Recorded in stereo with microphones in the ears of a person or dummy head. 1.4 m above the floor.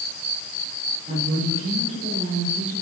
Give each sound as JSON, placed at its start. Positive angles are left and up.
{"t": 1.1, "sound": "a woman speaking", "side_deg": -40, "distance_m": 5.0}